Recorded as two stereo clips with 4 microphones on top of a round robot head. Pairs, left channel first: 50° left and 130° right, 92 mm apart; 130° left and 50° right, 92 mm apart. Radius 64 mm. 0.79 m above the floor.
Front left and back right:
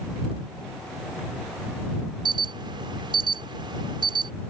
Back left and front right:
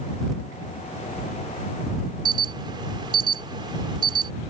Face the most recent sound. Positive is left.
turn(degrees=-90)